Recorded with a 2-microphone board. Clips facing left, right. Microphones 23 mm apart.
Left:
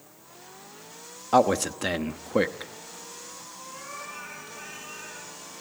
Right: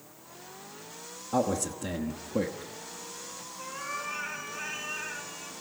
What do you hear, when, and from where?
1.3 s a man speaking: 70° left (ahead or behind), 1.0 m
3.6 s a cat meowing: 25° right (ahead or behind), 4.5 m